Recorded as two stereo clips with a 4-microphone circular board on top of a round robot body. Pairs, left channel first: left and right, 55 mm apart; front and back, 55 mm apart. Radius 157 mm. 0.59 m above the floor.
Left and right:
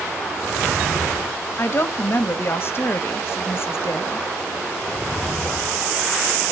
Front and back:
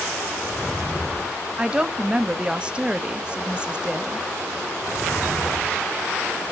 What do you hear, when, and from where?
1.6 s a woman speaking: 115° left, 1.3 m